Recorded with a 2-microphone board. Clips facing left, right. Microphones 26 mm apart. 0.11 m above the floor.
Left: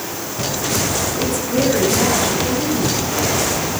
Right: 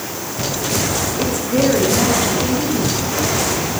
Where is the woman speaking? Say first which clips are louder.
Right 2 dB; 20° right (ahead or behind), 7.5 m.